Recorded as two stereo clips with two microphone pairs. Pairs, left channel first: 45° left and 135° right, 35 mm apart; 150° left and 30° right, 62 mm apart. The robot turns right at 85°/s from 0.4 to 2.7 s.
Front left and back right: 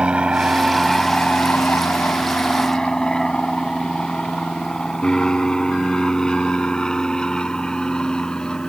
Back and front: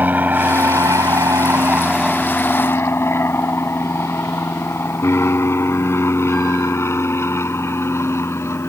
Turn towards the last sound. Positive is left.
turn(degrees=110)